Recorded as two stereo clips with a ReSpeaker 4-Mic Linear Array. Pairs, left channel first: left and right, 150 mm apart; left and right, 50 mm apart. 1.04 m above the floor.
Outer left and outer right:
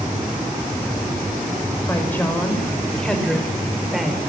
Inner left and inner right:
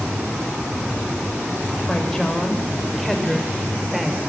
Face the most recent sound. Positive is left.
turn(degrees=-5)  # may be behind; listen again after turning